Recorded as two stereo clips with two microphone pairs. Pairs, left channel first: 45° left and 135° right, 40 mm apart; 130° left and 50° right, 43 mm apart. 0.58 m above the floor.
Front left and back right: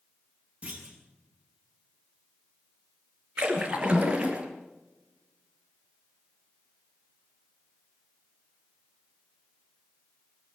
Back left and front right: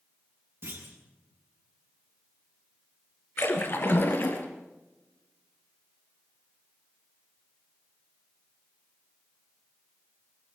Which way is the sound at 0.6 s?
80° right.